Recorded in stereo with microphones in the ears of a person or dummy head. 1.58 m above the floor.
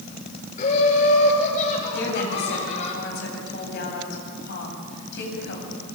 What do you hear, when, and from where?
0.6 s laughter: 45° left (ahead or behind), 5.5 m; by 2.9 s 35° left (ahead or behind), 8 m
1.9 s a woman speaking: 60° left (ahead or behind), 9 m